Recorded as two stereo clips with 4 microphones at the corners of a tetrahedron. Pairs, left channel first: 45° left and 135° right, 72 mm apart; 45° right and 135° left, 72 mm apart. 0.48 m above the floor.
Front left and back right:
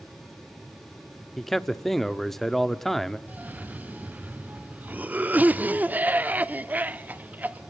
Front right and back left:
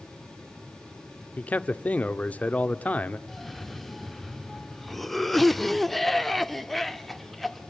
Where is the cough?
130° right, 0.8 m.